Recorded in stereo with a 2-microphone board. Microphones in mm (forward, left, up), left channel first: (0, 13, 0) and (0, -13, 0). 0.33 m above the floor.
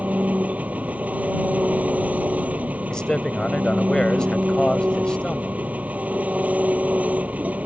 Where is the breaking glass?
No breaking glass in this recording.